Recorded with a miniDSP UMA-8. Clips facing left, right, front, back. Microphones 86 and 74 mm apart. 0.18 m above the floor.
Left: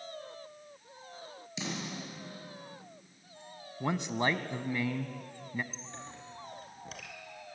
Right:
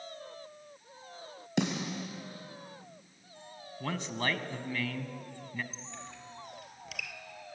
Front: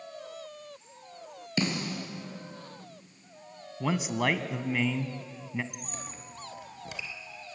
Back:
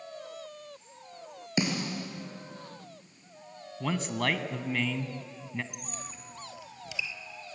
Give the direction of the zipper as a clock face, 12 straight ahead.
I don't hear a zipper.